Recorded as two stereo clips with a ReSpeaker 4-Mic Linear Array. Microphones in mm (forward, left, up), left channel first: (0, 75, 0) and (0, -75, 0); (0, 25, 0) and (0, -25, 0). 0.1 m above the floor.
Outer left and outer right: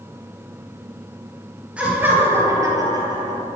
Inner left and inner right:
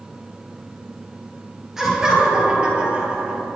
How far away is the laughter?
About 2 m.